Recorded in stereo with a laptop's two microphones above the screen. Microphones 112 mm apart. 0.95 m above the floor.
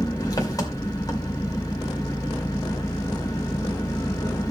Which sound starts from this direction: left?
An engine running, at 0.0 s.